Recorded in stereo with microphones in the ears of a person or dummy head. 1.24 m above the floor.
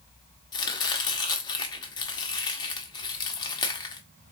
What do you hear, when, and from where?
0.5 s chopping: 25° left (ahead or behind), 1.0 m